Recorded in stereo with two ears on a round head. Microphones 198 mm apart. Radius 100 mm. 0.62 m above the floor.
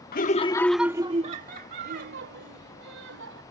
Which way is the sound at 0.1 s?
45° left (ahead or behind).